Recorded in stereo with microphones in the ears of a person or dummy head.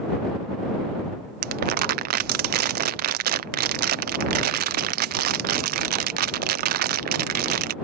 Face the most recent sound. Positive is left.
turn(degrees=-55)  # may be behind; listen again after turning